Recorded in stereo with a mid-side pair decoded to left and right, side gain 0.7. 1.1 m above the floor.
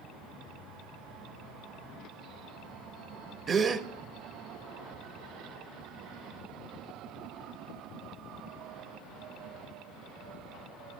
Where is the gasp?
30° right, 0.7 m.